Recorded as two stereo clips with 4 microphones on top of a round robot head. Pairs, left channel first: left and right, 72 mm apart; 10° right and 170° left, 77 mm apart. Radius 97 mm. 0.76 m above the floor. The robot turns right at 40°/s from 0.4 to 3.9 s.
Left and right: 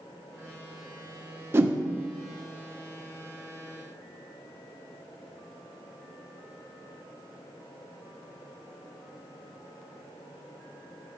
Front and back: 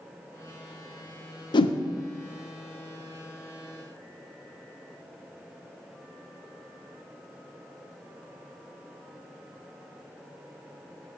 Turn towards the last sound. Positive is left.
turn(degrees=60)